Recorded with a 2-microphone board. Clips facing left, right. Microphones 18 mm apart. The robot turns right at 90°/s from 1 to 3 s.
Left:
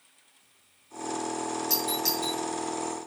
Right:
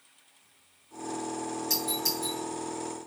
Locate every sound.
1.7 s a doorbell: centre (ahead or behind), 7 m; by 2.4 s 60° left (ahead or behind), 7 m